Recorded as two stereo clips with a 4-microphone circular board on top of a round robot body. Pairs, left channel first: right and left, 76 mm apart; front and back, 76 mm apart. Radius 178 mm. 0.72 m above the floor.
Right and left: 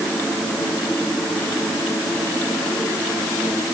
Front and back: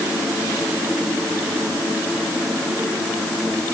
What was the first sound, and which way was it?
Only background noise.